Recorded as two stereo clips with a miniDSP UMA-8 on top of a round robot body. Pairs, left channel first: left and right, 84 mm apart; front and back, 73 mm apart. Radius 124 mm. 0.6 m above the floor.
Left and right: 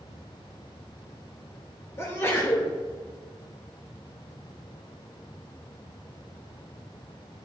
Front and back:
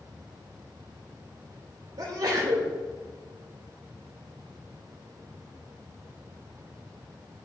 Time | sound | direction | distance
2.0 | a sneeze | 150° left | 2.5 m